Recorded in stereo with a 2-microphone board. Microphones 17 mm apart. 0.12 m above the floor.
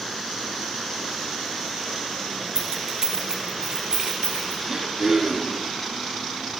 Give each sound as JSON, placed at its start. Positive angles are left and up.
{"t": 2.5, "sound": "keys jangling", "side_deg": -30, "distance_m": 1.3}
{"t": 4.7, "sound": "throat clearing", "side_deg": -30, "distance_m": 1.5}